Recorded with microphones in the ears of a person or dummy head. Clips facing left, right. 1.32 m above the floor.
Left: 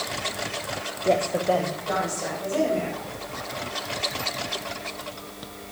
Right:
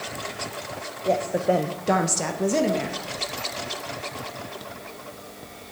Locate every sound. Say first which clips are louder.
1.1 s a woman speaking: even; 10° left (ahead or behind), 1.1 m; by 3.0 s 70° right (ahead or behind), 2 m